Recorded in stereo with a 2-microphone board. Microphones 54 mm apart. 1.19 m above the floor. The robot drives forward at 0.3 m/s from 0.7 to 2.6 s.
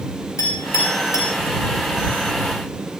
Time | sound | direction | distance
0.4 | a clink | 85° left | 4 m